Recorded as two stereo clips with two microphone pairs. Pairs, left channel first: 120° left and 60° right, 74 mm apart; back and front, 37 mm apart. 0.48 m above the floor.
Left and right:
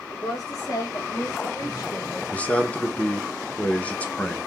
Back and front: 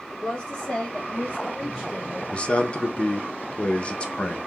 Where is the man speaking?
175° left, 0.7 m.